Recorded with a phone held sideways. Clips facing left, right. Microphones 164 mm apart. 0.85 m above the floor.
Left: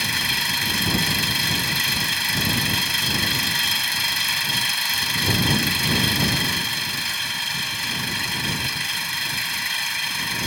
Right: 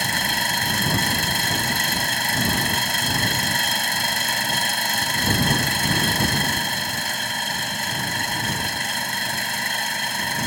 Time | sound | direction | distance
0.0 | an engine running | 50° right (ahead or behind) | ?